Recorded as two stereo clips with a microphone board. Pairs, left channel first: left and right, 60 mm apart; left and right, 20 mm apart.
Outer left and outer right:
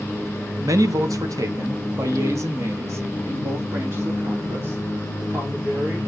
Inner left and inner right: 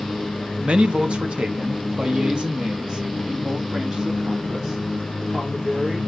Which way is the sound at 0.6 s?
60° right (ahead or behind).